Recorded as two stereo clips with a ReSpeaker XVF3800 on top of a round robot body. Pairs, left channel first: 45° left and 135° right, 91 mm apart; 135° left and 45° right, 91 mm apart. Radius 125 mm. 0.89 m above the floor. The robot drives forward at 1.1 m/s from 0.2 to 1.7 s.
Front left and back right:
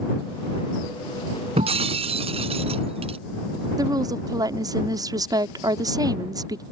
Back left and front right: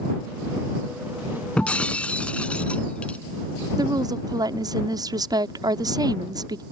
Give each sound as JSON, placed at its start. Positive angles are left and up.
{"t": 1.6, "sound": "breaking glass", "azimuth_deg": -145}
{"t": 3.8, "sound": "a woman speaking", "azimuth_deg": -90}